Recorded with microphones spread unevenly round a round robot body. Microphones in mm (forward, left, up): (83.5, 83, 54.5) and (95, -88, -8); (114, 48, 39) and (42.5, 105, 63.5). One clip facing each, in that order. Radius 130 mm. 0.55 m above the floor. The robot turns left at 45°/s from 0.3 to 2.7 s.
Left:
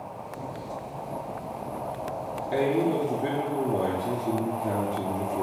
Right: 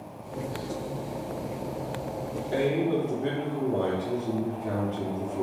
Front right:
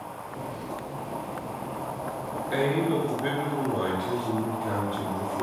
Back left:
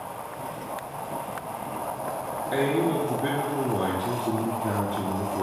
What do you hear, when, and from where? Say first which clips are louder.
2.5 s a man speaking: left 1 dB, back left 1 dB; 160° right, 0.6 m; by 5.4 s 170° right, 0.6 m